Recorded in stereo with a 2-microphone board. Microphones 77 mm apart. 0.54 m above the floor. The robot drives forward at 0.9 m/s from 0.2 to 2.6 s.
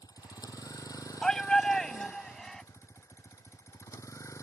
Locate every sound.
0.0 s a vehicle: 55° left (ahead or behind); by 4.4 s 40° left (ahead or behind)
1.2 s a shout: 10° left (ahead or behind); by 2.6 s 5° left (ahead or behind)